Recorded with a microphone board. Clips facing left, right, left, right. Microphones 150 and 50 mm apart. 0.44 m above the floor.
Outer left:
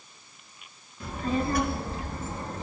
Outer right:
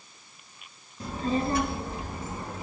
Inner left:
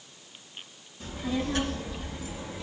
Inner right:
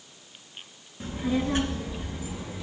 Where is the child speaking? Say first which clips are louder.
Outer right 1 dB, inner right 4 dB; 40° right (ahead or behind), 3.5 m; by 2.6 s 10° right (ahead or behind), 4 m.